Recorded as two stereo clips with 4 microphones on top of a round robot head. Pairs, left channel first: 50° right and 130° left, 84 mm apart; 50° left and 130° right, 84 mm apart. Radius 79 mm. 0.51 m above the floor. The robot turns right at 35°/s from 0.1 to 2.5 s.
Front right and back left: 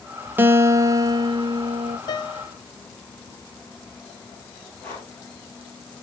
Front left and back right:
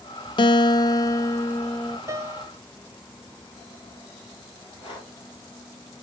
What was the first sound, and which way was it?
A guitar, 65° left.